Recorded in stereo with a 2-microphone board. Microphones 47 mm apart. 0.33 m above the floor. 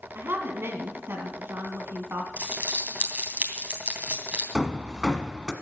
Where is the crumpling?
35° right (ahead or behind), 2.5 m.